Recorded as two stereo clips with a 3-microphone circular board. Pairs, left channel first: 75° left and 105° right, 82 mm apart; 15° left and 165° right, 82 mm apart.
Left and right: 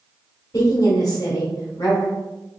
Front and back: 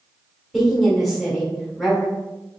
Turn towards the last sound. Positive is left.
turn(degrees=105)